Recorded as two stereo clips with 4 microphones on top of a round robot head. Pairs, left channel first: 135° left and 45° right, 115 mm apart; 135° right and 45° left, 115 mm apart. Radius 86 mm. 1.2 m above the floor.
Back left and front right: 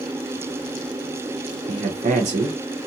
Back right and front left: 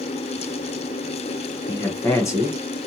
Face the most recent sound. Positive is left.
turn(degrees=-70)